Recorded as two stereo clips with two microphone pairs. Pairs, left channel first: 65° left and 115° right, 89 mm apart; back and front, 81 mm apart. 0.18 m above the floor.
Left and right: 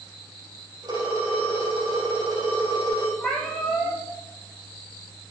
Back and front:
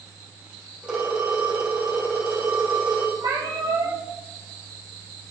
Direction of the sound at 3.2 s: 20° right.